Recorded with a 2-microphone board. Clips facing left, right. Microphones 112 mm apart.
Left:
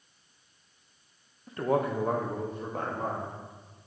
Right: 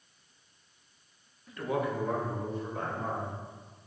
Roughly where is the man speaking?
Left.